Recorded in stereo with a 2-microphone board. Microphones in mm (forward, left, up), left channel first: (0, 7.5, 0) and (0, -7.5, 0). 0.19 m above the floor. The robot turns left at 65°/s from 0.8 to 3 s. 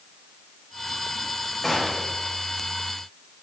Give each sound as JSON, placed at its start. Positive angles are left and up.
{"t": 1.6, "sound": "a gunshot", "azimuth_deg": 0, "distance_m": 7.0}